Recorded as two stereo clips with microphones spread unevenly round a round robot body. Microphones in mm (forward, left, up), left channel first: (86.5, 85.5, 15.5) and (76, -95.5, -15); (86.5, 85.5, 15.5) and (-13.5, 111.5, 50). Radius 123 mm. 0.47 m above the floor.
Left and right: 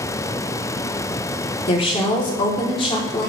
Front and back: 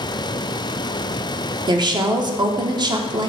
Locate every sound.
1.7 s a woman speaking: 135° left, 1.1 m